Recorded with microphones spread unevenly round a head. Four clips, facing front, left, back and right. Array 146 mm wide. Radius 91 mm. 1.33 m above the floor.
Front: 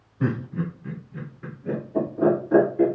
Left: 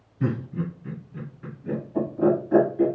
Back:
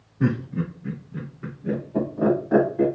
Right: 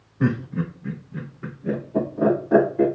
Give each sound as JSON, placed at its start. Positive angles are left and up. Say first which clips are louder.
{"t": 0.2, "sound": "laughter", "louder": "right 4 dB, back 2 dB", "azimuth_deg": -80, "distance_m": 2.0}